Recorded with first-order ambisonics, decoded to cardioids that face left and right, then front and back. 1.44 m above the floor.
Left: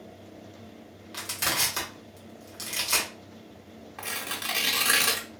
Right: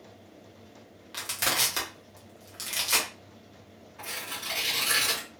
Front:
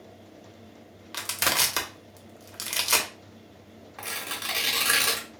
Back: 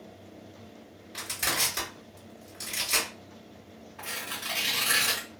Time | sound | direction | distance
1.1 | crushing | 5° right | 1.1 m
4.0 | tearing paper | 50° left | 1.1 m